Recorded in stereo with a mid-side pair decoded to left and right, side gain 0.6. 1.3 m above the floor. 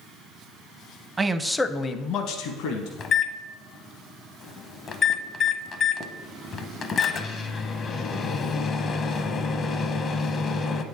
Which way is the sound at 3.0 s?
40° left.